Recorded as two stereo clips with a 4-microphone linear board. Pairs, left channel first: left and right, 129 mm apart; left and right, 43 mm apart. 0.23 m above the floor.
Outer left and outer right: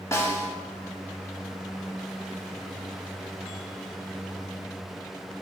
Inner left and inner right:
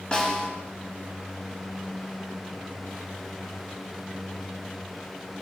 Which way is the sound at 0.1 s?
25° left (ahead or behind).